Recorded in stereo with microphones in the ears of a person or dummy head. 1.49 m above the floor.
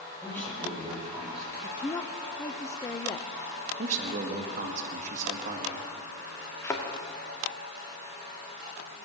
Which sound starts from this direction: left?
A woman speaking, at 1.6 s.